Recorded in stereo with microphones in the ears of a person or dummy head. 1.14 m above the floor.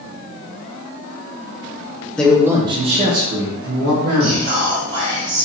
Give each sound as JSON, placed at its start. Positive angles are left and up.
{"t": 2.2, "sound": "a man speaking", "side_deg": 5, "distance_m": 0.8}
{"t": 4.2, "sound": "whispering", "side_deg": -45, "distance_m": 1.2}